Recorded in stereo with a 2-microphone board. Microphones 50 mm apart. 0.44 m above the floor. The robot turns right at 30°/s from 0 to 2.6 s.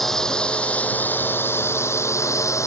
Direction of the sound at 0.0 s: 5° left.